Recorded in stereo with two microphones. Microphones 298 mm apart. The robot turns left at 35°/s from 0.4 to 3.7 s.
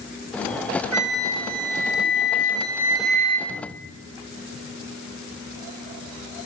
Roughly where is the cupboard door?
Left.